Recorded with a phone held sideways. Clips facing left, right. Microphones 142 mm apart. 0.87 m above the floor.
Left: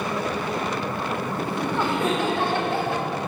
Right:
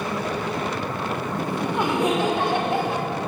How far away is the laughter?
About 2.0 m.